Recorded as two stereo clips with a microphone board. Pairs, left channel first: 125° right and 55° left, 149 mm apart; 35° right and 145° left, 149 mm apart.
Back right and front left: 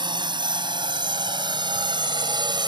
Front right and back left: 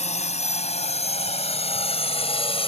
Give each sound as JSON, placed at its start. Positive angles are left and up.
{"t": 0.0, "sound": "a drone", "azimuth_deg": 0}